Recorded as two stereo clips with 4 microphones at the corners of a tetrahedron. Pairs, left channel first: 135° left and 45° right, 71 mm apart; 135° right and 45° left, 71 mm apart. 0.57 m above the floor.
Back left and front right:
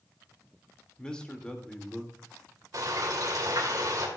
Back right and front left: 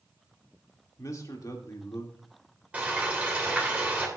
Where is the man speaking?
150° right, 1.5 m.